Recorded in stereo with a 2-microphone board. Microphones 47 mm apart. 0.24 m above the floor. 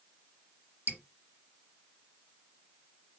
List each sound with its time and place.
0.9 s dripping: 40° right (ahead or behind), 1.2 m